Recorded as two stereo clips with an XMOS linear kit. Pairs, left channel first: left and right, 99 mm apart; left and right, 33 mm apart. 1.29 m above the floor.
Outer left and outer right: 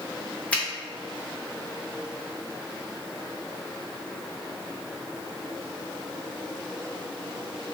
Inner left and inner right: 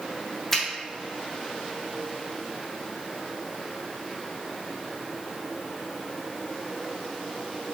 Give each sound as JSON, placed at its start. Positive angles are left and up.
{"t": 0.5, "sound": "a finger snap", "side_deg": 15, "distance_m": 0.8}